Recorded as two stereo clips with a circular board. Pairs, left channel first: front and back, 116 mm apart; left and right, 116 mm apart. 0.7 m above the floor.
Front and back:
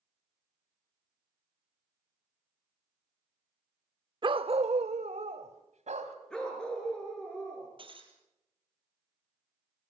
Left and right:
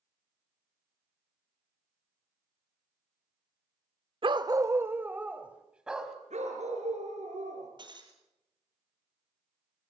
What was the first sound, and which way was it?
A dog barking, 130° right.